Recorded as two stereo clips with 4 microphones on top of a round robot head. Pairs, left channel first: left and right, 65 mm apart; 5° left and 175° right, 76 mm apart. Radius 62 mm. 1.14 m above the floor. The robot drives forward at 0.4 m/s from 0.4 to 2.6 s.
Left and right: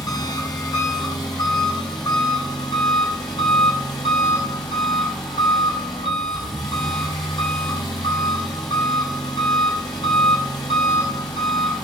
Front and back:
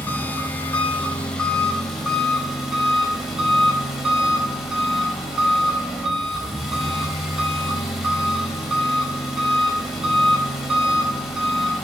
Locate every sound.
0.0 s an engine running: 70° left, 2 m; by 11.8 s 100° left, 1.9 m